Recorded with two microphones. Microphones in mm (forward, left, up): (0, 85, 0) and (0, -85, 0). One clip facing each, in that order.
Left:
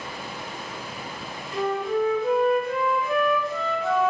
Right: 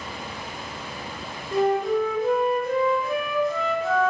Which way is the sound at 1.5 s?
45° right (ahead or behind).